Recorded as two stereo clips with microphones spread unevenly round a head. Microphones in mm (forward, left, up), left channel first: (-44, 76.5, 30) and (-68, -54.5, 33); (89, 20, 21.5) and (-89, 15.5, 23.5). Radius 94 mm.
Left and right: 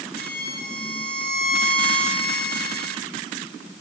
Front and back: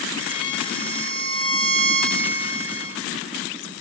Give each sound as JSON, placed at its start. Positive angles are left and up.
{"t": 0.2, "sound": "a violin", "azimuth_deg": 65, "distance_m": 7.0}